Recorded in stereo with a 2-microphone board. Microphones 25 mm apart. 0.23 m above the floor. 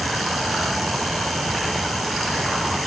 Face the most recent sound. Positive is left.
No sound to turn to.